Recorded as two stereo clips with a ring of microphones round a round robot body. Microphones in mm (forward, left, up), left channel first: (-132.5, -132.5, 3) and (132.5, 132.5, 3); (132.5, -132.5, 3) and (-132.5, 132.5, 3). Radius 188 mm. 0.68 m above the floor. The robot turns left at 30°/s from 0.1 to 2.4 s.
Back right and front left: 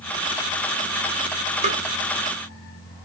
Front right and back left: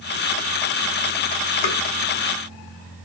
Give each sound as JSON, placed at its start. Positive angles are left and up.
{"t": 1.6, "sound": "tapping", "azimuth_deg": -25, "distance_m": 2.0}